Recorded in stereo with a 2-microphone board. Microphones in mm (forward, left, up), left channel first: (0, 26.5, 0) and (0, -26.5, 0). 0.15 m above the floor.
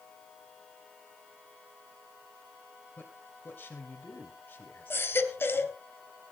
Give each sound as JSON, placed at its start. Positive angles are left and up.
{"t": 3.0, "sound": "a man speaking", "side_deg": 35, "distance_m": 2.5}
{"t": 4.9, "sound": "a baby crying", "side_deg": 45, "distance_m": 2.0}